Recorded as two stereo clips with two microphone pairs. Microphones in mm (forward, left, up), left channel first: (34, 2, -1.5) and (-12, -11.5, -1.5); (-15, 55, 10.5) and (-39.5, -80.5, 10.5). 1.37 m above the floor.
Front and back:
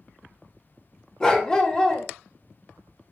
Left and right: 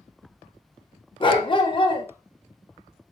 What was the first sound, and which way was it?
A dog barking, 75° left.